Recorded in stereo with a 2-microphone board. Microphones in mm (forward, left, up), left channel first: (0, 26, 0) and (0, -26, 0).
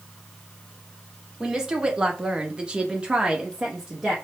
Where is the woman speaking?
15° right (ahead or behind), 1.2 m; by 4.2 s 10° right (ahead or behind), 1.0 m.